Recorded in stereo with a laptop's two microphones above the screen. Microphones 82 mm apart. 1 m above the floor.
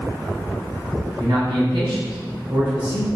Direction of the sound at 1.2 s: 60° right (ahead or behind).